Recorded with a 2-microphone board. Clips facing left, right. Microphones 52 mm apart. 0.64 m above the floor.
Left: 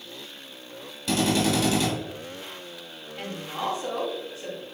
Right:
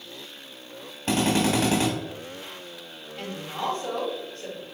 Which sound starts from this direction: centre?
A woman speaking, at 3.2 s.